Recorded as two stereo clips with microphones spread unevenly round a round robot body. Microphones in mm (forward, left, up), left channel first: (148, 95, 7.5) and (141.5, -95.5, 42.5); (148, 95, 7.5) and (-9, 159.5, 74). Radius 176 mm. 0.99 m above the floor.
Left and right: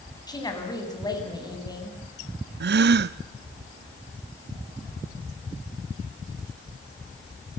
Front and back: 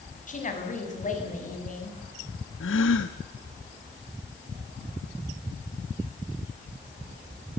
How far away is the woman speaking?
About 7 m.